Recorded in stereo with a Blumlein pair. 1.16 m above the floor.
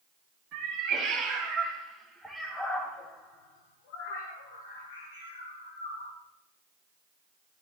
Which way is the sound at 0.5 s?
35° right.